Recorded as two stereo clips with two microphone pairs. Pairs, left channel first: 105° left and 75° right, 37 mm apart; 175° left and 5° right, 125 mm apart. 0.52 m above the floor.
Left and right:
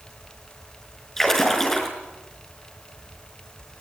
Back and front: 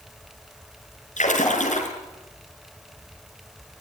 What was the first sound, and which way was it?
A splash, straight behind.